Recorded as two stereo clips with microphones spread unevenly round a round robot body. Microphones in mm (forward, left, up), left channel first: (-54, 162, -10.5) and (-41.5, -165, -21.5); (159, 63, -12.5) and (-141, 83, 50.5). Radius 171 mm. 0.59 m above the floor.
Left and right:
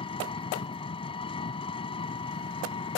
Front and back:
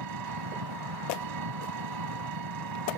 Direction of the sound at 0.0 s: 165° left.